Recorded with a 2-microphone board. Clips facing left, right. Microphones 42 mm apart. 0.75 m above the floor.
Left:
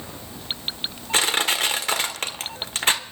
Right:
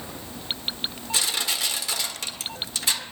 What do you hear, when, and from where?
1.1 s crushing: 50° left (ahead or behind), 1.1 m